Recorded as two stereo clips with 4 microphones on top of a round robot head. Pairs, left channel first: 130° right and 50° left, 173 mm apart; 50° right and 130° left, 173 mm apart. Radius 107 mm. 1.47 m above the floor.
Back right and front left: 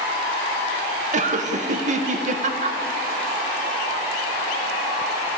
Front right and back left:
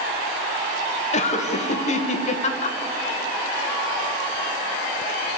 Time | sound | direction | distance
1.1 | laughter | straight ahead | 1.6 m